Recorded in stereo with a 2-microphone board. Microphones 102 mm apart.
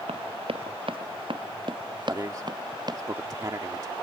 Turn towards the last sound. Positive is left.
turn(degrees=-40)  # may be behind; listen again after turning